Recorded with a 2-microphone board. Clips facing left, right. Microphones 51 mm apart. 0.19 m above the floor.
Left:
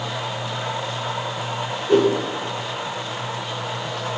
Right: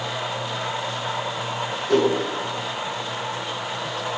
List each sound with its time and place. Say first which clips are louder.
1.9 s a whoosh: left 3 dB; 15° left (ahead or behind), 0.5 m